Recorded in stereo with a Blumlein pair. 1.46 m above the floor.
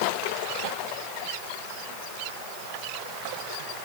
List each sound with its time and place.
Only background noise.